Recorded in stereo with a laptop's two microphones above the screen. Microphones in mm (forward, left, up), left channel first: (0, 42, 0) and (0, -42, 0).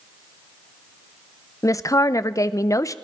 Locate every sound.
1.6 s a woman speaking: 40° left (ahead or behind), 0.6 m